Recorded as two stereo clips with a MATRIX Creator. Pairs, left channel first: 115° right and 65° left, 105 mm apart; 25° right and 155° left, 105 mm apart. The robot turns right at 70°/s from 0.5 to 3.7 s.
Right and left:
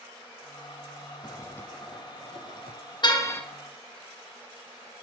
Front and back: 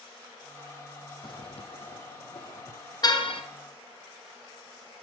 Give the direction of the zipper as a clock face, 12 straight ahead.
2 o'clock.